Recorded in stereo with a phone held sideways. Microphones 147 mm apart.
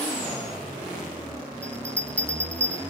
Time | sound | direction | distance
1.6 | a bell | 10° left (ahead or behind) | 3.5 m